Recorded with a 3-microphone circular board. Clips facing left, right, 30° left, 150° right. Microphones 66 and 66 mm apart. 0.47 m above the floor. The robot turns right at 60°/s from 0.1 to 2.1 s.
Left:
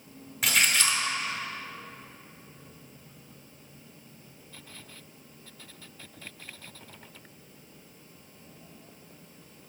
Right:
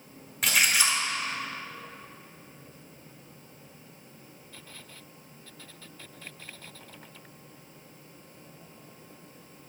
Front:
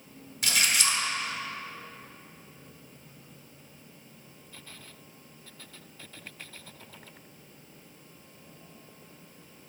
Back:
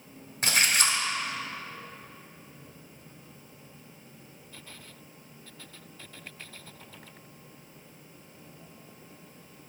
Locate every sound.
0.4 s a splash: straight behind, 0.9 m; by 1.0 s 145° right, 0.9 m